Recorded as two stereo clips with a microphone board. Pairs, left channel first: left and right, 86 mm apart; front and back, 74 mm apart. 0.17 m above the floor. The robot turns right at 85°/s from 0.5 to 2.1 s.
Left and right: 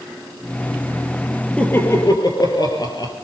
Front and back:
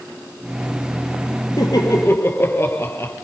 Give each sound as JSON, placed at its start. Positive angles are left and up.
{"t": 1.6, "sound": "laughter", "azimuth_deg": 10, "distance_m": 3.0}